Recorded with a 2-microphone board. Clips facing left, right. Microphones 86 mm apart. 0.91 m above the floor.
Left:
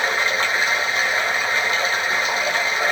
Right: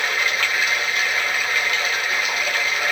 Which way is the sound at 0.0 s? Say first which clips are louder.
Left 2 dB; 30° left (ahead or behind).